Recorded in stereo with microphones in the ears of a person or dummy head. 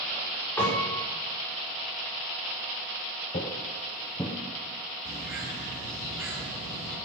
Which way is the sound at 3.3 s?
15° left (ahead or behind).